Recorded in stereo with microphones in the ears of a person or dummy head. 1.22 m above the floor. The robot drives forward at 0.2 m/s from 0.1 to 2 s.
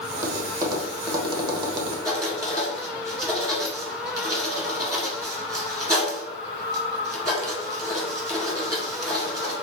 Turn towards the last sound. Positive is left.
turn(degrees=-20)  # may be behind; listen again after turning